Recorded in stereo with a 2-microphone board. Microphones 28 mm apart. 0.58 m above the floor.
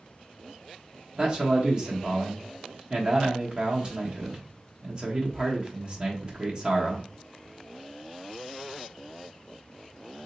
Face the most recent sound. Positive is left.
turn(degrees=-30)  # may be behind; listen again after turning